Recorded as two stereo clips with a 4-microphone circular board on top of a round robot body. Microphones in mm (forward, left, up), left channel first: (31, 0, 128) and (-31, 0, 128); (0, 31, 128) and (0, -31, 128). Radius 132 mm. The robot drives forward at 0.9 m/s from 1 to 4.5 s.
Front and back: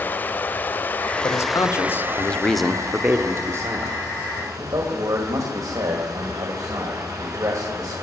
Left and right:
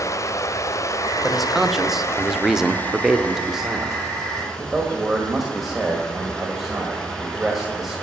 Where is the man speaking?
5° right, 1.5 m; by 8.0 s 175° right, 1.9 m.